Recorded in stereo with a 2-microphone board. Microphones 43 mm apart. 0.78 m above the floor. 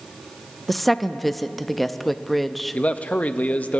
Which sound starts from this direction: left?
A man speaking, at 2.7 s.